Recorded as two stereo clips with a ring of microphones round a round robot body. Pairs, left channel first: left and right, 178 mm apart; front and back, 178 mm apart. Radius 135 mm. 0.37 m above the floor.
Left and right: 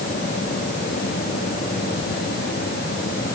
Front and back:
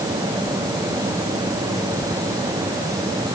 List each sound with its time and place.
Only background noise.